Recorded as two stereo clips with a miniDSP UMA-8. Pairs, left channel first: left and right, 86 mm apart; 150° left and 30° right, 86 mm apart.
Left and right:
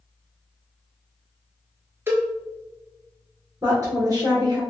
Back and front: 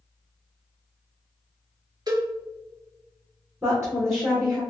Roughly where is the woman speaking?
Right.